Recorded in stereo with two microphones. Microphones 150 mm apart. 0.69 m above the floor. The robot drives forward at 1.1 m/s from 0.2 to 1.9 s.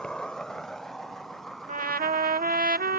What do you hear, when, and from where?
0.0 s an insect: 5° left (ahead or behind); by 3.0 s centre (ahead or behind)
1.7 s a trumpet: 55° right (ahead or behind); by 3.0 s 75° right (ahead or behind)